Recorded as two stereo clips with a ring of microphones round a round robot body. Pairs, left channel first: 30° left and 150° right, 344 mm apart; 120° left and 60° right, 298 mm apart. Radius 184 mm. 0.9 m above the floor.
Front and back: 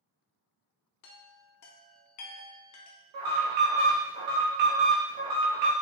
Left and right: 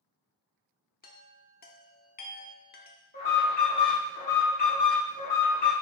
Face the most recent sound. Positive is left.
turn(degrees=-175)